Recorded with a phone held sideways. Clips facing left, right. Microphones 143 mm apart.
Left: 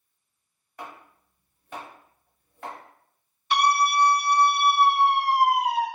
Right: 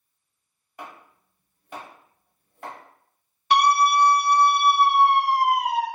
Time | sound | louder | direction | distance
0.8 | chopping | even | 10° right (ahead or behind) | 1.4 m
3.5 | a scream | right 3 dB | 70° right (ahead or behind) | 0.9 m